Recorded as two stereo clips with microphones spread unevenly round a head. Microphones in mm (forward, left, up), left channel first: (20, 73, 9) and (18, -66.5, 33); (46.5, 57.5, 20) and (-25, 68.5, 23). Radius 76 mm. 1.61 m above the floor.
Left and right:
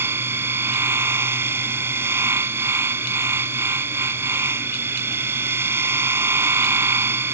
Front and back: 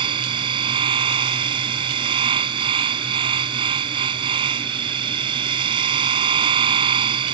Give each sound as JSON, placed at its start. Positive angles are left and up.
{"t": 0.0, "sound": "a machine running", "azimuth_deg": -165}